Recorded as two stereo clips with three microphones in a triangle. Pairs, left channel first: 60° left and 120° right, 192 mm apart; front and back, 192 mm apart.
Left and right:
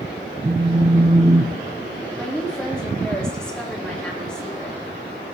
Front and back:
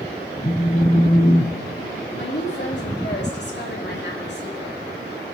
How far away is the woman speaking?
About 2.0 m.